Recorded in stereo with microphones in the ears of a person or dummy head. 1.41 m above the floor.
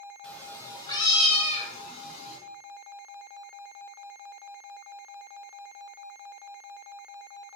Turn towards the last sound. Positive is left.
turn(degrees=55)  # may be behind; listen again after turning